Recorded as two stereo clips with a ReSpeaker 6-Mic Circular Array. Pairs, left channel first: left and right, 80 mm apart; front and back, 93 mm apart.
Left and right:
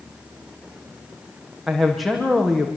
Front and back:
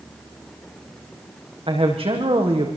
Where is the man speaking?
Straight behind, 6.5 m.